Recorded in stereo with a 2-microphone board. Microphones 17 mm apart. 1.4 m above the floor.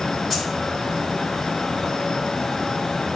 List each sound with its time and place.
0.3 s keys jangling: centre (ahead or behind), 4.5 m